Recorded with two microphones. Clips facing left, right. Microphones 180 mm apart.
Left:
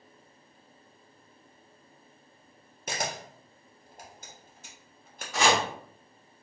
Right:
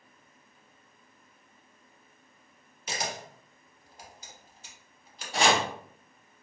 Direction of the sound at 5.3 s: 30° right (ahead or behind).